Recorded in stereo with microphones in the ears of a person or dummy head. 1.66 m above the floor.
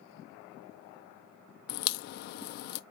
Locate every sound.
1.7 s a crack: 55° left (ahead or behind), 0.5 m